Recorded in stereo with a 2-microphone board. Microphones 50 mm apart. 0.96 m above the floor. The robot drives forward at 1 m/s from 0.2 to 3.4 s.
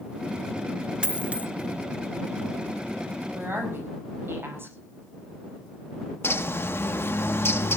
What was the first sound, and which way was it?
A dropped coin, 20° right (ahead or behind).